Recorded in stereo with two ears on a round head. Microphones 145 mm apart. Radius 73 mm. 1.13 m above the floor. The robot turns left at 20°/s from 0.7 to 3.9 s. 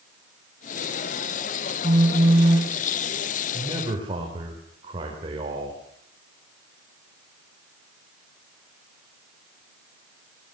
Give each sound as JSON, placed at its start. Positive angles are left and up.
{"t": 1.8, "sound": "a phone buzzing", "side_deg": -40, "distance_m": 5.0}
{"t": 3.5, "sound": "a man speaking", "side_deg": -25, "distance_m": 4.5}